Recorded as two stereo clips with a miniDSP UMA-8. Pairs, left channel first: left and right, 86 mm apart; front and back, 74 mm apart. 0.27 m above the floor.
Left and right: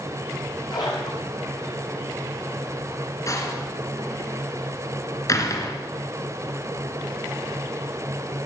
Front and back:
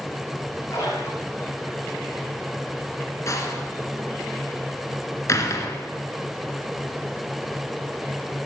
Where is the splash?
50° left, 5.5 m.